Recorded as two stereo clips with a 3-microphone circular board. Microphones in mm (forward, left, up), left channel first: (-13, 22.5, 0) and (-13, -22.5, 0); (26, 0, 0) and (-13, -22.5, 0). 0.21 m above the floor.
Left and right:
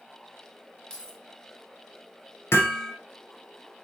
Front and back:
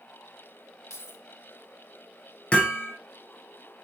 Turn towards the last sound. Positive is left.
turn(degrees=95)